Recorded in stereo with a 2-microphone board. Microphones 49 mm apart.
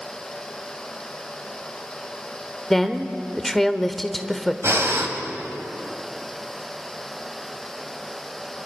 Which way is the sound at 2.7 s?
5° left (ahead or behind).